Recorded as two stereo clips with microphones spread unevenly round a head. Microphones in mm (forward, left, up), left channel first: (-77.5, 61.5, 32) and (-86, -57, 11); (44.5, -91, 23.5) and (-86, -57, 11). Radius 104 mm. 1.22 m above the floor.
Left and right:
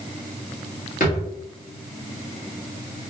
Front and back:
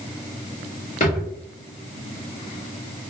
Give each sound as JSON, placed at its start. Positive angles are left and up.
{"t": 1.0, "sound": "a drawer", "azimuth_deg": 45, "distance_m": 1.2}